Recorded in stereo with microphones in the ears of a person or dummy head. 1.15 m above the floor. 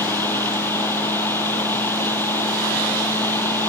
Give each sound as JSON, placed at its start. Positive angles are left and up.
{"t": 0.0, "sound": "a fan", "side_deg": 10}